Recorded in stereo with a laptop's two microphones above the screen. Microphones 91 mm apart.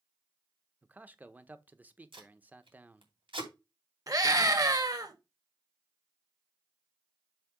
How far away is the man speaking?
About 0.8 m.